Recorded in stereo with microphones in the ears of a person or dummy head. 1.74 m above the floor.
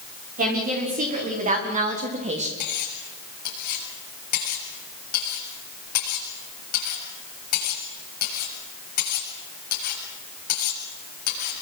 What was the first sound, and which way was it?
A woman speaking, 35° right (ahead or behind).